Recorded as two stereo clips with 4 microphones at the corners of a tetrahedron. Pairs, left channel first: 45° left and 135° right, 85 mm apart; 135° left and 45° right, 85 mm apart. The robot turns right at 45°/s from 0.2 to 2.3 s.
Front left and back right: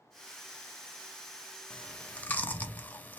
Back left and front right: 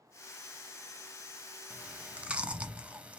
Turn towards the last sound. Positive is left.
turn(degrees=5)